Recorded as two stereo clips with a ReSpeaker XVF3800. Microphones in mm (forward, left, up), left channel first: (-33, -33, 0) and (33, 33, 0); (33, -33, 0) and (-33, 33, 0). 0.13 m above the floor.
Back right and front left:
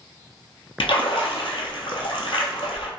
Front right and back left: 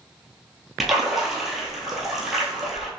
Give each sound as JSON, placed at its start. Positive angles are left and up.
{"t": 0.8, "sound": "a splash", "azimuth_deg": -135, "distance_m": 0.8}